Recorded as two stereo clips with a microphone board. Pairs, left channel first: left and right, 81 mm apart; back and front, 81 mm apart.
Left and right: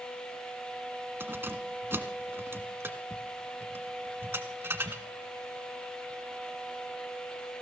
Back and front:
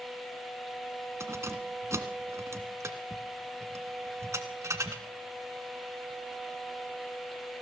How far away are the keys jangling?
About 1.4 m.